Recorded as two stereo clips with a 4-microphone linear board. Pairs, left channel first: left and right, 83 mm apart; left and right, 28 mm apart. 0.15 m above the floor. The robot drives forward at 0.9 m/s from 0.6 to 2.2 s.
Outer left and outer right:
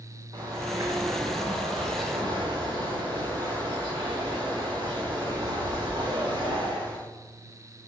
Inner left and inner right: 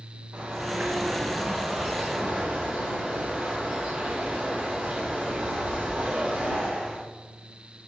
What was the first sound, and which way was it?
A bird, 55° right (ahead or behind).